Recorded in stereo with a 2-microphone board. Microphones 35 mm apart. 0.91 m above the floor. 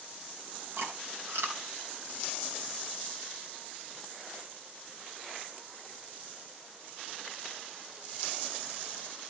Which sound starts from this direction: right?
Chewing, at 0.8 s.